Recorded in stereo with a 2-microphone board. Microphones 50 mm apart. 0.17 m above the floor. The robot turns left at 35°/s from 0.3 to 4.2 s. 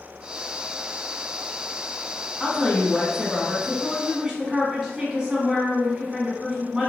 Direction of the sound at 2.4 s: 30° left.